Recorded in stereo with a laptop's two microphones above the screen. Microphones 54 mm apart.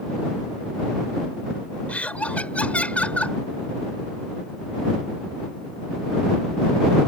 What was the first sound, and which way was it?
Laughter, 25° left (ahead or behind).